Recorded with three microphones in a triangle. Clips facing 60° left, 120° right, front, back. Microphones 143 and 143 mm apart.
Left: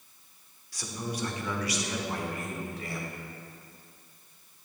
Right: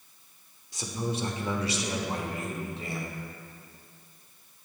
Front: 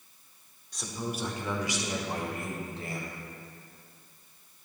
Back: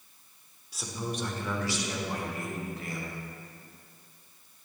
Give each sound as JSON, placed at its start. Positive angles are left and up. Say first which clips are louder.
{"t": 0.7, "sound": "a man speaking", "louder": "right 4 dB, even", "azimuth_deg": -105, "distance_m": 0.8}